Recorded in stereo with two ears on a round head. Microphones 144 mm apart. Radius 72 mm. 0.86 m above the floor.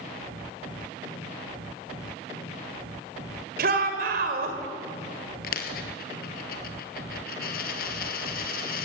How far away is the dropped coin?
About 1.9 m.